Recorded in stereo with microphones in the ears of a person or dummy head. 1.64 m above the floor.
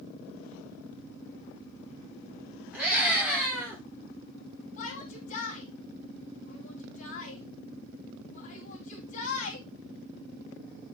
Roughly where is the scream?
Centre.